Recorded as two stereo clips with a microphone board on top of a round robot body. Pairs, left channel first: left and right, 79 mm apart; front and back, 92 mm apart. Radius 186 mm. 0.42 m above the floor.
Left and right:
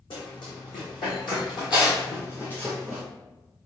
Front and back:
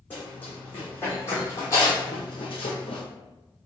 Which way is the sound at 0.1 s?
70° left.